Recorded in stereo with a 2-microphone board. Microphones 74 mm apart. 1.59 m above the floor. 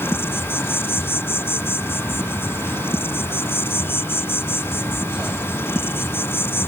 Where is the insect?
30° left (ahead or behind).